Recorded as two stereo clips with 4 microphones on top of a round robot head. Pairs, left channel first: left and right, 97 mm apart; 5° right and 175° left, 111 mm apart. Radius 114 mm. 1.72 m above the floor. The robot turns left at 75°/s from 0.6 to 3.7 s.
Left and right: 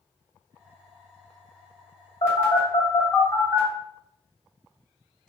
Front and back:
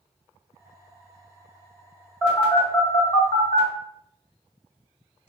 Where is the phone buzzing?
115° left, 1.7 m; by 5.3 s straight ahead, 1.7 m.